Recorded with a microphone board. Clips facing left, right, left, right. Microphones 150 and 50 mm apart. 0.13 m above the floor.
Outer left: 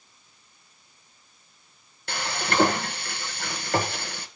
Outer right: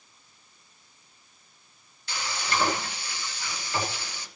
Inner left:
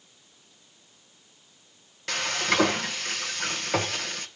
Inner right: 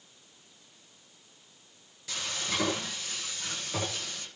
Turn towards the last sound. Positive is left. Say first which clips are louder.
# outer left 3 dB, inner left 9 dB
turn(degrees=60)  # may be behind; listen again after turning